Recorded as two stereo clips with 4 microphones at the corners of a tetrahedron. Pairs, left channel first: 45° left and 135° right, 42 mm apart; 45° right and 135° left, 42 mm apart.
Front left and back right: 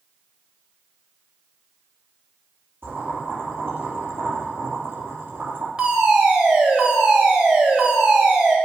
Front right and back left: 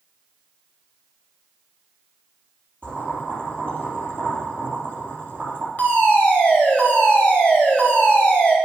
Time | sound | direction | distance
2.8 | boiling | 105° right | 4.5 m
5.8 | a fire alarm | 75° right | 3 m